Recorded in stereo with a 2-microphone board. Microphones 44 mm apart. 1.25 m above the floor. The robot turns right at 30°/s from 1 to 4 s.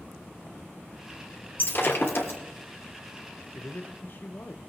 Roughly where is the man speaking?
Left.